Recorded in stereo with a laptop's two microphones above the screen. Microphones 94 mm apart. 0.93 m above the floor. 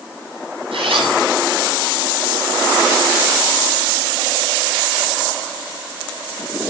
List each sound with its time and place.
0.7 s a zipper: 85° right, 9.5 m